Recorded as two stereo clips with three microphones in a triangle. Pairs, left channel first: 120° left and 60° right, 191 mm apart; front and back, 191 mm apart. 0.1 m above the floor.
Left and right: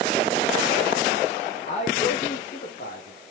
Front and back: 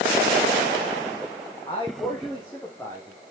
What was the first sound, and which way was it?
A man speaking, 65° left.